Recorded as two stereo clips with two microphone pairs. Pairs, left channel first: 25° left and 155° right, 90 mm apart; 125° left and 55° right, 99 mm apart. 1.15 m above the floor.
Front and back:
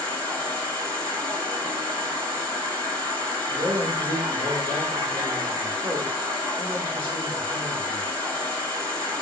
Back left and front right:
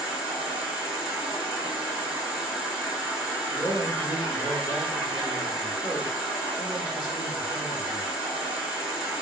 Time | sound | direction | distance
0.0 | an insect | 135° right | 1.7 m
3.5 | a man speaking | 135° right | 1.4 m